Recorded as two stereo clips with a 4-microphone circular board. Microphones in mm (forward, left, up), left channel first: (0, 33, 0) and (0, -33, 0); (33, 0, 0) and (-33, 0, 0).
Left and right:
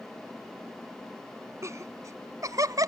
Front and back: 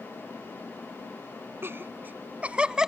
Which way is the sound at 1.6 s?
130° right.